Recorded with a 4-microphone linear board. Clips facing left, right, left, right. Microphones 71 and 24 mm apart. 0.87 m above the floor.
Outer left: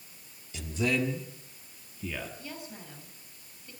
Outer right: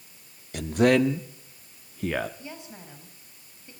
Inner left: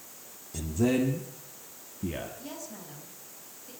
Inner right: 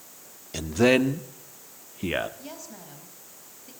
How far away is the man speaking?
About 1.6 m.